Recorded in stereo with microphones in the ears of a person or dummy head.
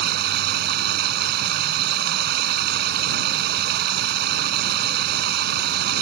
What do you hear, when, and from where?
0.0 s running water: 65° right (ahead or behind)